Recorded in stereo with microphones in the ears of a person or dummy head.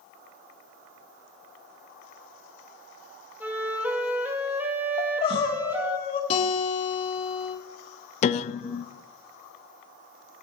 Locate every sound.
3.4 s a flute: 5° right (ahead or behind), 2 m
5.0 s crying: 30° left (ahead or behind), 1.4 m
6.3 s a guitar: 45° left (ahead or behind), 4.5 m
8.2 s a piano: 50° left (ahead or behind), 0.6 m